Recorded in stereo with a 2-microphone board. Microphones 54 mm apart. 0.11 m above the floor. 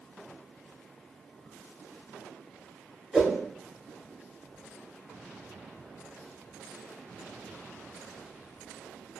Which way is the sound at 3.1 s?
5° right (ahead or behind).